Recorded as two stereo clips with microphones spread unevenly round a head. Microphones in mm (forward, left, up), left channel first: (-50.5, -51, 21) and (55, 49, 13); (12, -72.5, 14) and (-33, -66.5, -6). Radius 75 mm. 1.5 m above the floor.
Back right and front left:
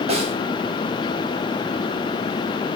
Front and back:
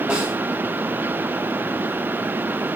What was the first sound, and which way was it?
A snare drum, 95° left.